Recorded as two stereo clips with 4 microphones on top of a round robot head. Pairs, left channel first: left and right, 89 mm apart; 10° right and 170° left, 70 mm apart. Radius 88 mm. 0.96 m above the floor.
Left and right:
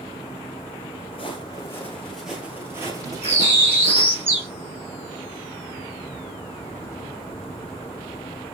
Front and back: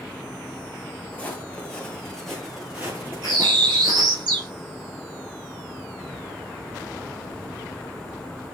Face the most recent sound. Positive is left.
turn(degrees=-155)